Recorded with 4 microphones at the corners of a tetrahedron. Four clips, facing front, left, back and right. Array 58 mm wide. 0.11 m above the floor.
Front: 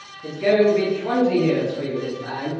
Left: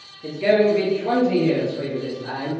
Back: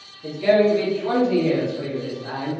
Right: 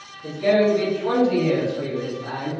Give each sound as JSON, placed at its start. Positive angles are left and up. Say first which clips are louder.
{"t": 0.2, "sound": "a man speaking", "louder": "left 1 dB, even", "azimuth_deg": 70, "distance_m": 1.8}